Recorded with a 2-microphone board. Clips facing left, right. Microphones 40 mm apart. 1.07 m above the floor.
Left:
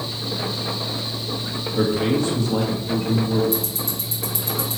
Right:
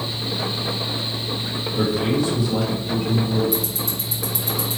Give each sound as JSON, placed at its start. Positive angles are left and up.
{"t": 1.8, "sound": "a man speaking", "side_deg": 55, "distance_m": 1.6}
{"t": 3.5, "sound": "ticking", "side_deg": 50, "distance_m": 2.5}